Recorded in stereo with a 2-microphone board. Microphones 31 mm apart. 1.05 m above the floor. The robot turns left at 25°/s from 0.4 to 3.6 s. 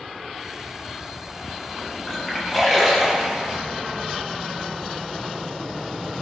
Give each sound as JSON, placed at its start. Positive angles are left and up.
{"t": 2.1, "sound": "a splash", "side_deg": 20, "distance_m": 6.0}